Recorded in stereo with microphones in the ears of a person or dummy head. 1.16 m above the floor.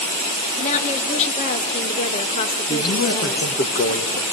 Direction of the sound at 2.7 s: 40° left (ahead or behind).